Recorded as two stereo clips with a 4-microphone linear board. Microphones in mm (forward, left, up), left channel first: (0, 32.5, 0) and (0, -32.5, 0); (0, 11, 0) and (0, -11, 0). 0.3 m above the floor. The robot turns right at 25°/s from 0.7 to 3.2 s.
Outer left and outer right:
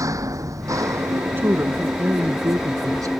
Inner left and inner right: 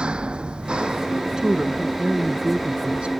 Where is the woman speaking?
140° right; by 3.1 s 95° right.